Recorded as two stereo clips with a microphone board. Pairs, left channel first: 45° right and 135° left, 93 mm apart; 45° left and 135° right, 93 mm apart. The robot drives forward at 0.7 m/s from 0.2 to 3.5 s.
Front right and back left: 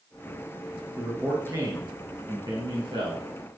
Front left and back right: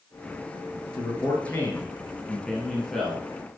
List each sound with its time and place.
0.9 s a man speaking: 80° left, 1.9 m; by 3.2 s 135° left, 2.5 m